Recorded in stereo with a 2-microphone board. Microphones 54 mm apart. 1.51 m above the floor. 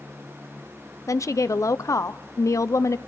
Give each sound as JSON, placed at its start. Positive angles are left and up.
{"t": 1.1, "sound": "a woman speaking", "side_deg": 75, "distance_m": 0.6}